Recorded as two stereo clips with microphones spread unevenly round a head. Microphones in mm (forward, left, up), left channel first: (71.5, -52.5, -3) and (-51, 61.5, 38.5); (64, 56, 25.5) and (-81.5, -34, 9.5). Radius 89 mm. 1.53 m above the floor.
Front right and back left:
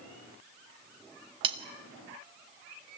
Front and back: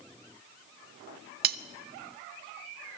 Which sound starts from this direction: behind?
Cutlery clinking, at 1.4 s.